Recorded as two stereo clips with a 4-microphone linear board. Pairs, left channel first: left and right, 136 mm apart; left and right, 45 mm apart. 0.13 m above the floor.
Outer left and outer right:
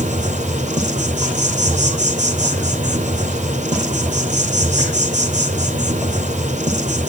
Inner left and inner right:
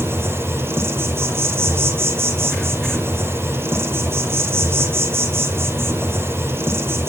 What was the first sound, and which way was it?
An insect, 70° right (ahead or behind).